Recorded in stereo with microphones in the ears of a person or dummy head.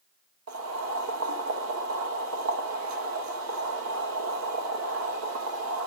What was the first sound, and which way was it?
Boiling, 85° right.